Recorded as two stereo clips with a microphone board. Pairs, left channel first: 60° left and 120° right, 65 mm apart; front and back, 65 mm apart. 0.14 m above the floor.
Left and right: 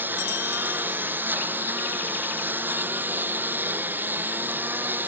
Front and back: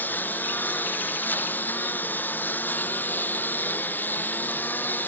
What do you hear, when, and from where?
0.0 s a lawn mower: 65° right